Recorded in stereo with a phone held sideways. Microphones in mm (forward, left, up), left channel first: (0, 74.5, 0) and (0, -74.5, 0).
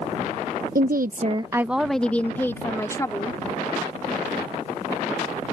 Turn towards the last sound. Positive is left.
turn(degrees=25)  # may be behind; listen again after turning